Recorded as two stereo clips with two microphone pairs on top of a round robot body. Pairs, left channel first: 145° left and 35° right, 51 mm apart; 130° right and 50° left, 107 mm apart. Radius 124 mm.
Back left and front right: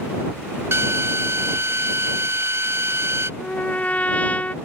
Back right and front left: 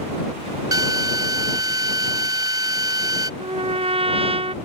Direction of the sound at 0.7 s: 5° right.